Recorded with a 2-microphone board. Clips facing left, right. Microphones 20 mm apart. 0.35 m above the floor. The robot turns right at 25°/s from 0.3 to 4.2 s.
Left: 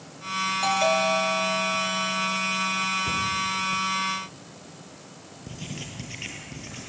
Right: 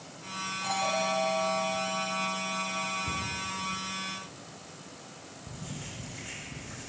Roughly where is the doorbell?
Left.